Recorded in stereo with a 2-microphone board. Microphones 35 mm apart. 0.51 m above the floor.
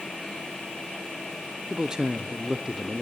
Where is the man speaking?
20° right (ahead or behind), 0.7 m.